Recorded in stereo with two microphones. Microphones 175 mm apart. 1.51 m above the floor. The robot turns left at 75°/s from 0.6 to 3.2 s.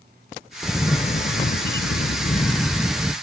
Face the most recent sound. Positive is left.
turn(degrees=-20)